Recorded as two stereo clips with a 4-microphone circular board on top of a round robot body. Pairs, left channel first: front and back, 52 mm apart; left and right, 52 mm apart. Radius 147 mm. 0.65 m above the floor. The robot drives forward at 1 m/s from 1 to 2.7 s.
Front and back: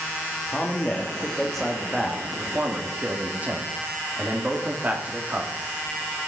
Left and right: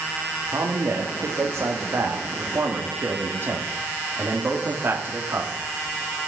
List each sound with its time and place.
0.5 s a man speaking: 65° right, 1.8 m; by 5.5 s 125° right, 2.0 m